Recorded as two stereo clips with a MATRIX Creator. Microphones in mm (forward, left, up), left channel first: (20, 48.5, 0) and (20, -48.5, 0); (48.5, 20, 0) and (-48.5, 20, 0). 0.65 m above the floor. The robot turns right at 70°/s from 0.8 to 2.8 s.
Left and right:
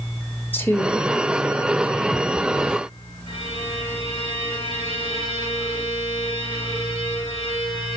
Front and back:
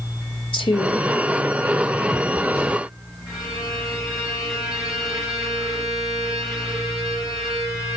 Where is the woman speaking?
20° left, 2.0 m; by 1.1 s 40° left, 2.0 m.